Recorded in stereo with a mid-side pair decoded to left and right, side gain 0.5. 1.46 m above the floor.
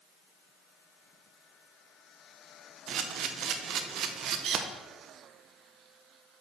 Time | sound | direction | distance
2.9 | a camera shutter | 65° right | 1.0 m